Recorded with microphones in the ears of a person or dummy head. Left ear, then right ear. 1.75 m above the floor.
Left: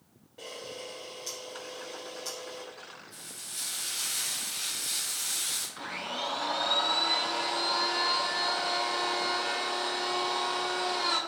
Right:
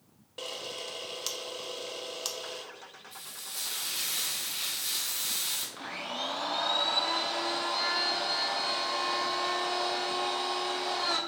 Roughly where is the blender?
Centre.